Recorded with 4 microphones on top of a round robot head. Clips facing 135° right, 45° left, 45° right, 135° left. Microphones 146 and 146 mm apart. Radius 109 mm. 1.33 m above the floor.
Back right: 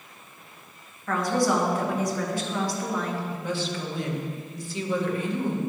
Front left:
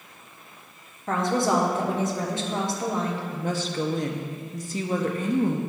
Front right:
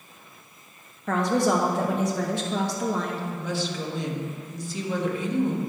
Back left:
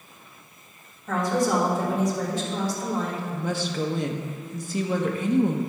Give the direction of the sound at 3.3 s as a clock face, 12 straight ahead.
9 o'clock.